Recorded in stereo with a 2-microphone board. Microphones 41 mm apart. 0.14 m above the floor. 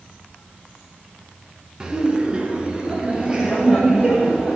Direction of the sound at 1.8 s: 20° right (ahead or behind).